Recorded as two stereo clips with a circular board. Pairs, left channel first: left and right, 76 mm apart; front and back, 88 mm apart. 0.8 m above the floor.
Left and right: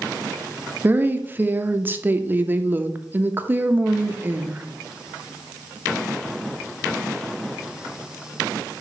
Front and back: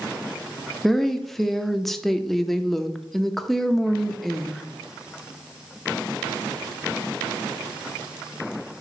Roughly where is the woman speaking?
Right.